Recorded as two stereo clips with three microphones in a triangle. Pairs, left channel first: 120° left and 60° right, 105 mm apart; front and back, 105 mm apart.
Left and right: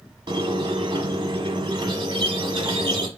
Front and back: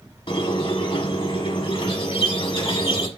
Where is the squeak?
30° right, 1.0 m.